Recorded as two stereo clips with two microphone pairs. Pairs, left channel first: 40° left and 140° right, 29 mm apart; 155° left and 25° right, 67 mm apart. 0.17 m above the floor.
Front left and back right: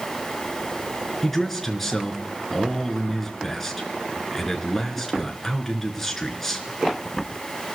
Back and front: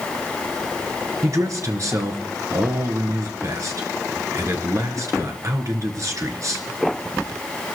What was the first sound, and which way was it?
A man speaking, 45° right.